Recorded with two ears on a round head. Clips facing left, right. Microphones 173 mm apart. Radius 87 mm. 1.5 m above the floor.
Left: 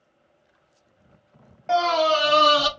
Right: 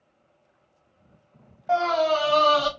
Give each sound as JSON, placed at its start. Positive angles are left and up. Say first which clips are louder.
{"t": 1.7, "sound": "a scream", "louder": "left 1 dB", "side_deg": 30, "distance_m": 1.0}